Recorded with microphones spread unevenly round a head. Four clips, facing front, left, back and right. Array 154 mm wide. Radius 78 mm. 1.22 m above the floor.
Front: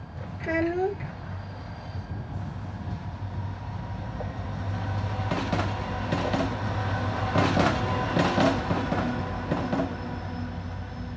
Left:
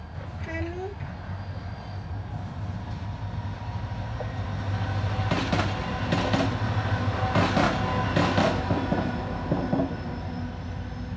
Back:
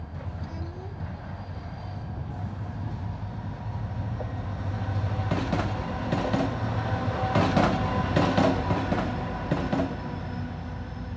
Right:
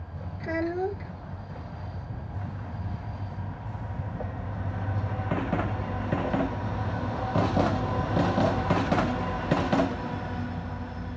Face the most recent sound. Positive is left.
turn(degrees=-20)